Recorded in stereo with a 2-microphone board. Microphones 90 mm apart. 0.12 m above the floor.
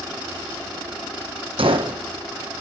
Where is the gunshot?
80° right, 1.0 m.